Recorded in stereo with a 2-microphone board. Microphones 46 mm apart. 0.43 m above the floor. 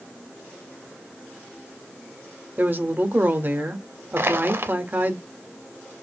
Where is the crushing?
60° right (ahead or behind), 0.7 m.